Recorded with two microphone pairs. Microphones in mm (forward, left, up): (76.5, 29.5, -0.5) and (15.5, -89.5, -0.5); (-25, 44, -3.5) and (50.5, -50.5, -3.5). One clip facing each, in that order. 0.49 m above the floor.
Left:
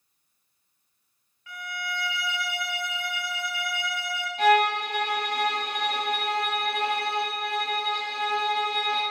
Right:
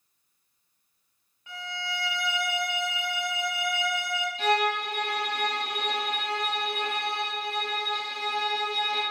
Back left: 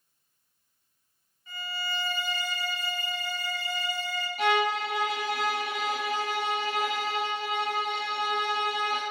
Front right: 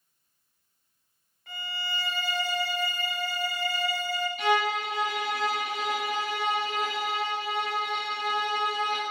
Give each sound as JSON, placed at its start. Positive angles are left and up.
{"t": 1.5, "sound": "a violin", "azimuth_deg": -50, "distance_m": 0.6}
{"t": 4.4, "sound": "a violin", "azimuth_deg": 85, "distance_m": 1.4}